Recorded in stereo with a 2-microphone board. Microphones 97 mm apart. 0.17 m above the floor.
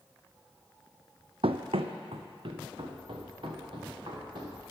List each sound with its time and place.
1.4 s running footsteps: 80° right, 0.5 m; by 4.5 s 60° right (ahead or behind), 3.5 m